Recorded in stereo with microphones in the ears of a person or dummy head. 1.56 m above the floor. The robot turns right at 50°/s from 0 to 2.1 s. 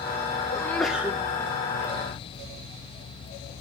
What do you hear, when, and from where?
0.5 s a sneeze: 155° left, 1.8 m; by 1.2 s 170° right, 1.8 m